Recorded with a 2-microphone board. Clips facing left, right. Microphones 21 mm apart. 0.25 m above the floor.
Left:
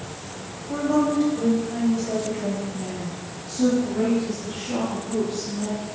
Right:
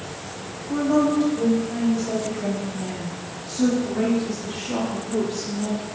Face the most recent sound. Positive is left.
turn(degrees=-15)  # may be behind; listen again after turning